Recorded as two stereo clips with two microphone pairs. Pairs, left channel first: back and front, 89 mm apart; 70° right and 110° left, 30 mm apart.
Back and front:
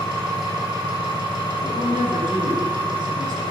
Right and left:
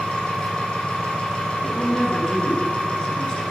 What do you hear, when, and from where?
0.0 s an engine running: 30° right, 4.5 m
1.6 s a woman speaking: 25° right, 3.5 m